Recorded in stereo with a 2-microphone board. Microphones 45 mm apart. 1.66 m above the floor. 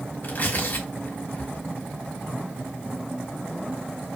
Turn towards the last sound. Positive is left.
turn(degrees=45)  # may be behind; listen again after turning